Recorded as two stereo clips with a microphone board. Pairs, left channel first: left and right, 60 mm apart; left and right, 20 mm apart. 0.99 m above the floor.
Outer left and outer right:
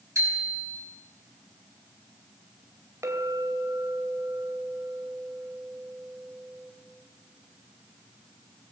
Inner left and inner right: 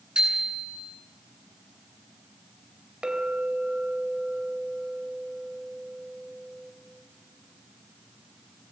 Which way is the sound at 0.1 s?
65° right (ahead or behind).